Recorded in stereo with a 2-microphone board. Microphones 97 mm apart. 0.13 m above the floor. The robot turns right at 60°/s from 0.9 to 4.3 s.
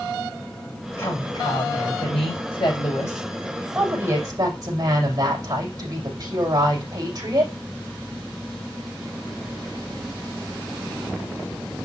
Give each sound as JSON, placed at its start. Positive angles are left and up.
{"t": 1.0, "sound": "a woman speaking", "azimuth_deg": 25, "distance_m": 6.0}